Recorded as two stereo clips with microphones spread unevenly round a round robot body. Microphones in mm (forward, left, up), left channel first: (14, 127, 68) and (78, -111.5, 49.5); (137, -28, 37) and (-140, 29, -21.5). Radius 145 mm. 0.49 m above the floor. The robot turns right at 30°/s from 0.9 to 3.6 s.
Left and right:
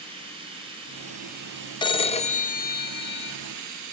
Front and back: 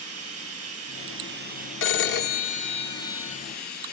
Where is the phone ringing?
35° left, 0.8 m; by 3.4 s 80° left, 0.8 m.